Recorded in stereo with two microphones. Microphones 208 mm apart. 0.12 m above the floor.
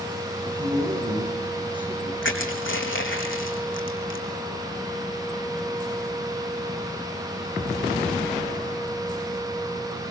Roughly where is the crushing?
Left.